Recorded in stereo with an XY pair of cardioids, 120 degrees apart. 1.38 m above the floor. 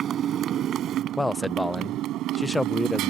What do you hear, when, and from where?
0.0 s a motorcycle: 55° right; by 3.1 s 80° right
1.2 s a man speaking: 5° left